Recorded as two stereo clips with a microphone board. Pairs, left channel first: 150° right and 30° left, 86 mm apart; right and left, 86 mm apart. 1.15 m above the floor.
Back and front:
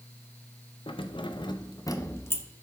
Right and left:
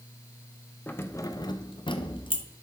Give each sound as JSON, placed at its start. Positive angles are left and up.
{"t": 0.9, "sound": "keys jangling", "azimuth_deg": -160, "distance_m": 0.7}